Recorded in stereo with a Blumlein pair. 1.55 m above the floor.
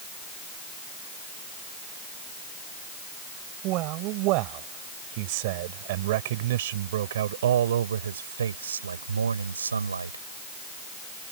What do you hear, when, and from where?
3.6 s a man speaking: 40° right; by 10.2 s 80° right